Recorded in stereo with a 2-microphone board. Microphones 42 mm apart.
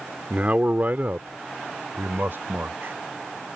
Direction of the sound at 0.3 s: 40° right (ahead or behind).